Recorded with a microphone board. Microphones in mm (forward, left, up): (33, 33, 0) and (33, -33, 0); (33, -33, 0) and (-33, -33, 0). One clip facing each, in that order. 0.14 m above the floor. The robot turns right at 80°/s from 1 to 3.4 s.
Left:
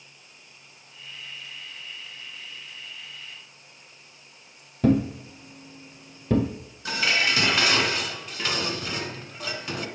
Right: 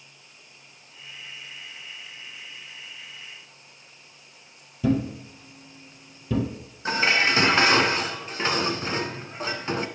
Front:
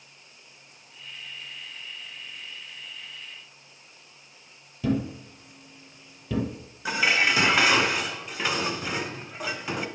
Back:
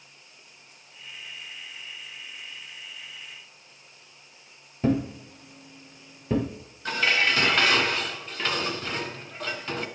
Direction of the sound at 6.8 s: 70° right.